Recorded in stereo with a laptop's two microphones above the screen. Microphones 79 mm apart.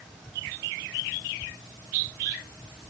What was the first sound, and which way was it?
Only background noise.